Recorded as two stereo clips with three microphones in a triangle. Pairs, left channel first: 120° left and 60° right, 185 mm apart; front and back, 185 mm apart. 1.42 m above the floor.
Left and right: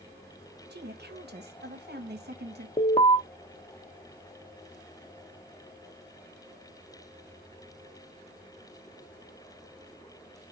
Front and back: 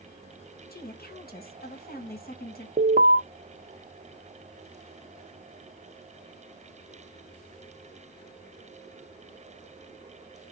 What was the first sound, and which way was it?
A woman speaking, 35° right.